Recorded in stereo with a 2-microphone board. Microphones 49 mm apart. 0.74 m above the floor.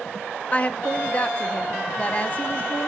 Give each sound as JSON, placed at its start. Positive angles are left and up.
{"t": 0.5, "sound": "a woman speaking", "side_deg": 30, "distance_m": 0.7}